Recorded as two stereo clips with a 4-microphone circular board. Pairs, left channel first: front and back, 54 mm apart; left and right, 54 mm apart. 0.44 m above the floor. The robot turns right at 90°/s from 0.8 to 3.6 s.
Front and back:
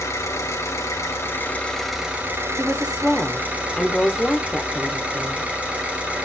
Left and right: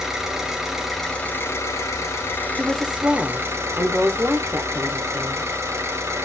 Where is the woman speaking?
170° right, 0.8 m; by 5.5 s 75° right, 0.8 m.